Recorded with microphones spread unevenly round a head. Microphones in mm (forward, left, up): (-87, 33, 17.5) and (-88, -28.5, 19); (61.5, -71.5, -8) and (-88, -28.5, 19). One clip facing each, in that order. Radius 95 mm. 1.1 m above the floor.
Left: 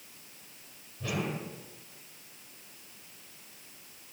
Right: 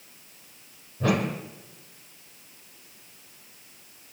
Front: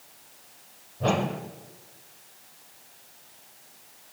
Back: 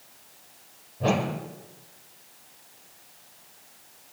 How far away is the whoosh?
About 2.5 m.